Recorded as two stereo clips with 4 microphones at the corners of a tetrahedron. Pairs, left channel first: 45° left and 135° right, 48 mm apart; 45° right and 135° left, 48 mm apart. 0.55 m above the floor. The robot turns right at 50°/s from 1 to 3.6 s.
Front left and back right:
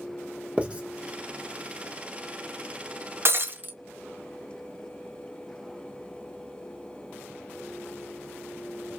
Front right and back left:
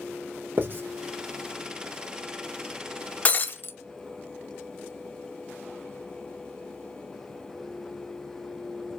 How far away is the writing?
About 1.2 m.